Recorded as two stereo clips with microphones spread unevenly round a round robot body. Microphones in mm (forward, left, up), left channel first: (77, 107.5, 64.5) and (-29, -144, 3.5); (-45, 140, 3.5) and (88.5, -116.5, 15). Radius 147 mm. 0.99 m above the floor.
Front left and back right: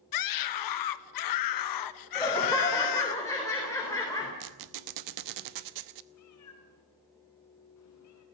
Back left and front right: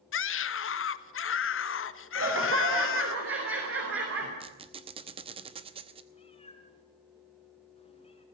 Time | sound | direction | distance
0.1 | a scream | 75° left | 1.3 m
2.1 | laughter | 15° right | 4 m
4.4 | a squeak | 135° right | 0.8 m
6.1 | a cat meowing | 45° left | 3.5 m